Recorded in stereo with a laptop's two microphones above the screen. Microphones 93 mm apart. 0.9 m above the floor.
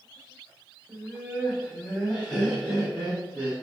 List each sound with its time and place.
0.9 s laughter: 5° right (ahead or behind), 0.9 m; by 3.5 s centre (ahead or behind), 1.3 m